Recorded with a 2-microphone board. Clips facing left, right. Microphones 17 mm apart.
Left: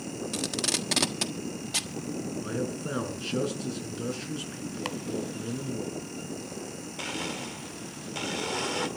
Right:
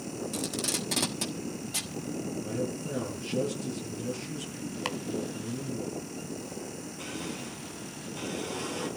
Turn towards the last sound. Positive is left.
turn(degrees=60)  # may be behind; listen again after turning